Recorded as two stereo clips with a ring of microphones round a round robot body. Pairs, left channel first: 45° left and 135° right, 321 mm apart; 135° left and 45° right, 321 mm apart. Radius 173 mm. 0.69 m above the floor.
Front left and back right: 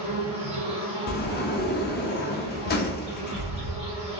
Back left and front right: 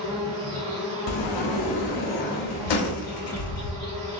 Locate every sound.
0.0 s an insect: 165° right, 1.7 m
1.1 s a sliding door: 110° left, 0.6 m